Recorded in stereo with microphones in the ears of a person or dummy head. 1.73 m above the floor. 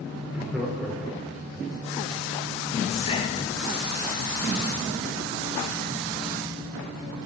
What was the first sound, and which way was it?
Laughter, 5° right (ahead or behind).